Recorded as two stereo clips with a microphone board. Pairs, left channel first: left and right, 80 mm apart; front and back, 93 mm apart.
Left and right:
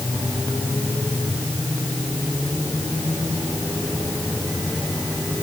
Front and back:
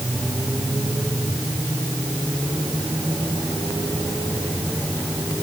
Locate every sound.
Only background noise.